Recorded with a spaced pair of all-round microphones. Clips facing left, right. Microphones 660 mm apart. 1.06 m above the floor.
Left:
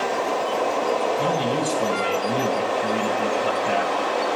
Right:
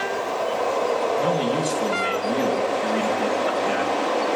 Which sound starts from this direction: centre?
A man speaking, at 1.2 s.